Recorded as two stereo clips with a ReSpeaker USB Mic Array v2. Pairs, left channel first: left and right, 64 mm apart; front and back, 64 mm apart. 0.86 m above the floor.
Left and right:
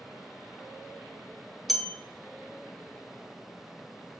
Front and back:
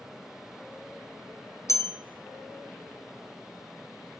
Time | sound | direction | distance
1.7 | a bell | straight ahead | 0.9 m